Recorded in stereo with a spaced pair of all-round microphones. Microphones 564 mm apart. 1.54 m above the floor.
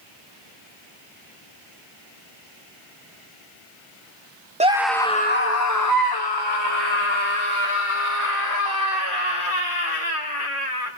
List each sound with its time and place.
4.6 s a scream: 10° right (ahead or behind), 0.9 m; by 10.9 s 70° left (ahead or behind), 4.5 m